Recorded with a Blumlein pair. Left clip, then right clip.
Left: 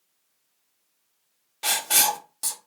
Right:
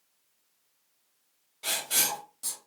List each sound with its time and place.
1.6 s writing: 55° left, 0.8 m